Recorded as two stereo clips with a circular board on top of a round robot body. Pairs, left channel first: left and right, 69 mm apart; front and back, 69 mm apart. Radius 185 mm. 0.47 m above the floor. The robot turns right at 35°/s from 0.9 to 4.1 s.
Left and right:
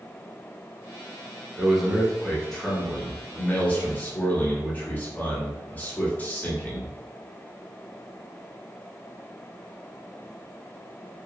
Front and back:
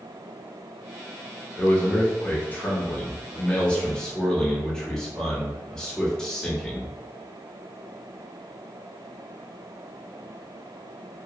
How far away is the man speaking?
About 1.4 m.